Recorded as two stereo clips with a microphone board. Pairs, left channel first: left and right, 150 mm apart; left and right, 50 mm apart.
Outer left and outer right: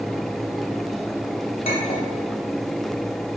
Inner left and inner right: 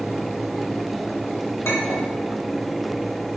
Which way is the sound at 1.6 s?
65° left (ahead or behind).